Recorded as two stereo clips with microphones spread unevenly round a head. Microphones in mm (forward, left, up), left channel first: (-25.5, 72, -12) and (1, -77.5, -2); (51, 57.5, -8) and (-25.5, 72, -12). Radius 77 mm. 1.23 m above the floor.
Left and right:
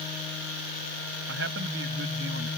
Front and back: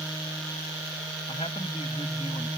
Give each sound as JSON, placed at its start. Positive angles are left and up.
{"t": 1.3, "sound": "a man speaking", "azimuth_deg": -65}